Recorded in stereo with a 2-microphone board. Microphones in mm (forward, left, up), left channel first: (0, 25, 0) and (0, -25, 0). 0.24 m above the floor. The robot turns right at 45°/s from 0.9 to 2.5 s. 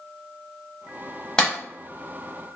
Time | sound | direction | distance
1.4 | a clap | 15° left (ahead or behind) | 0.9 m